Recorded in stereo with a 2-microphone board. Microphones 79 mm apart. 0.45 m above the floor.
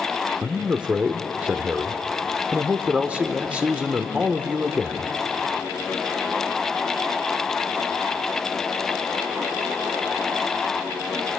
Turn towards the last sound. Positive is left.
turn(degrees=-15)  # may be behind; listen again after turning